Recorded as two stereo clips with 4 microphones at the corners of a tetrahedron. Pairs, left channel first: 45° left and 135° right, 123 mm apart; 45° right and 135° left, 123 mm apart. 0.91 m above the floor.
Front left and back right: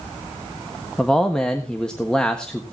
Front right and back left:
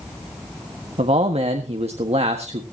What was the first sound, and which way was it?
A man speaking, 125° left.